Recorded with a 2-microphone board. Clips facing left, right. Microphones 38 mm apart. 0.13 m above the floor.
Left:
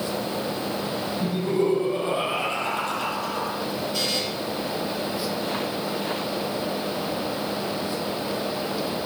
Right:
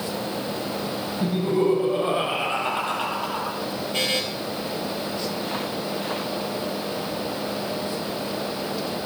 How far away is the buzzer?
About 3.5 m.